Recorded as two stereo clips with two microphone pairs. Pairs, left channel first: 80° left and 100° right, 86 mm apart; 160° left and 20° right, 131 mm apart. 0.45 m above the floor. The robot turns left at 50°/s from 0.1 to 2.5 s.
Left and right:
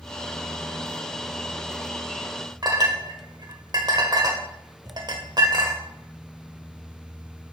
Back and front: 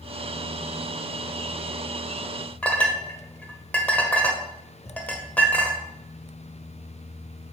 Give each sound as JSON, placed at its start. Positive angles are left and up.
{"t": 2.6, "sound": "a clink", "azimuth_deg": -125, "distance_m": 1.1}